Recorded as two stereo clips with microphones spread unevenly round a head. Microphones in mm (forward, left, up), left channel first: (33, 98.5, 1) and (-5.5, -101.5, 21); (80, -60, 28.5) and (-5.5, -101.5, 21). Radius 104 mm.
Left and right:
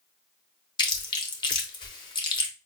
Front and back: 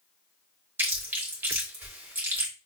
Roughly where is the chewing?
Behind left.